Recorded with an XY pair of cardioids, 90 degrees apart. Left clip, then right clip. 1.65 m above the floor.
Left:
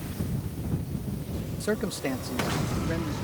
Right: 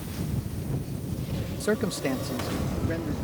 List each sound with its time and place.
1.6 s a man speaking: 15° right; by 3.1 s 5° left